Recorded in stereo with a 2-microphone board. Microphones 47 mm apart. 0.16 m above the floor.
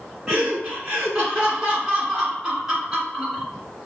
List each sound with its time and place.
0.3 s laughter: 10° right (ahead or behind), 1.7 m